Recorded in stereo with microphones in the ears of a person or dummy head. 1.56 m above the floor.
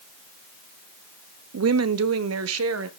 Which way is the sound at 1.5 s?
75° right (ahead or behind).